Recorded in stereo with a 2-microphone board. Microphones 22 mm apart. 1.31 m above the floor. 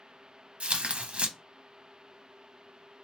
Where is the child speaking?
I don't hear a child speaking.